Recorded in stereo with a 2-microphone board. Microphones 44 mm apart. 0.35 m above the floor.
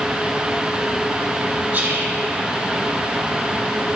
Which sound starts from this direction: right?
Whispering, at 1.7 s.